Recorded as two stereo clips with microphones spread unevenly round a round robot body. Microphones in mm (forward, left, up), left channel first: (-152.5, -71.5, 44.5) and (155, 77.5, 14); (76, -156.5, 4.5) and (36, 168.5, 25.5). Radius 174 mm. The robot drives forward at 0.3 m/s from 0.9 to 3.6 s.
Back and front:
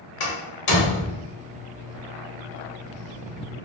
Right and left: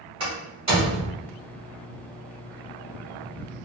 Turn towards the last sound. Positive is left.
turn(degrees=175)